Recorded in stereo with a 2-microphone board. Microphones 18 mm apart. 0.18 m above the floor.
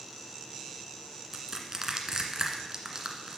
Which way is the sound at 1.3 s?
30° right (ahead or behind).